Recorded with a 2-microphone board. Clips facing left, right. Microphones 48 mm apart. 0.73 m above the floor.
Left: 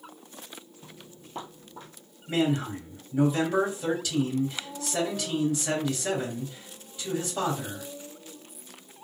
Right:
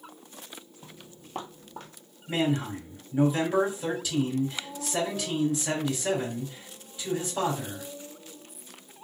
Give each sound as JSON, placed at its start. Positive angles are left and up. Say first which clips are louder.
{"t": 0.8, "sound": "footsteps", "louder": "even", "side_deg": -30, "distance_m": 1.3}
{"t": 2.3, "sound": "a man speaking", "louder": "left 1 dB", "side_deg": 0, "distance_m": 2.5}